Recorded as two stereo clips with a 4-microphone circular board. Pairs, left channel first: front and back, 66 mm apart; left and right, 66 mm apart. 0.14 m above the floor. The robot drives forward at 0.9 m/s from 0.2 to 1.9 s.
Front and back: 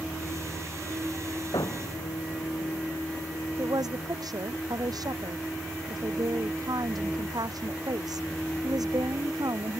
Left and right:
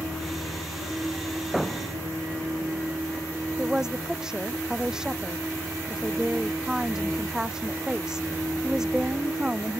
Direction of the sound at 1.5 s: Straight ahead.